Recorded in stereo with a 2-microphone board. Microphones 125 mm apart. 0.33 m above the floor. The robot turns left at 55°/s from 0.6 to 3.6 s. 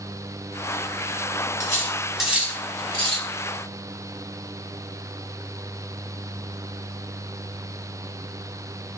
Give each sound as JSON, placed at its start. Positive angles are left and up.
{"t": 1.6, "sound": "cutlery clinking", "side_deg": 30, "distance_m": 1.1}